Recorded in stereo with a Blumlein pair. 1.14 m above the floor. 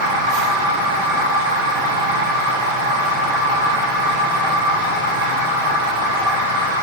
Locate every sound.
0.0 s a machine running: 55° right, 4 m